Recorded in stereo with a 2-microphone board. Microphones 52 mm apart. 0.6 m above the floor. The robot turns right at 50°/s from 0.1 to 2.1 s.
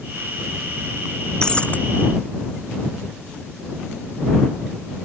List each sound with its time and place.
1.4 s breaking glass: 15° left (ahead or behind); by 1.8 s 30° left (ahead or behind)